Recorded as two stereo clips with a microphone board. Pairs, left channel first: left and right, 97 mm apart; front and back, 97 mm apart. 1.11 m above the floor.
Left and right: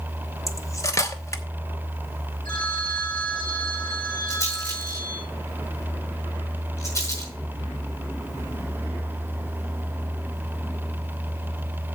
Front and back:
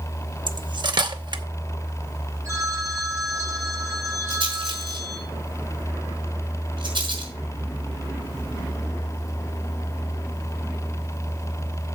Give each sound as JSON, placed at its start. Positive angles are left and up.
{"t": 0.5, "sound": "cutlery clinking", "azimuth_deg": 145, "distance_m": 0.9}
{"t": 2.5, "sound": "a phone ringing", "azimuth_deg": 120, "distance_m": 7.0}
{"t": 4.3, "sound": "a rattle", "azimuth_deg": 150, "distance_m": 5.5}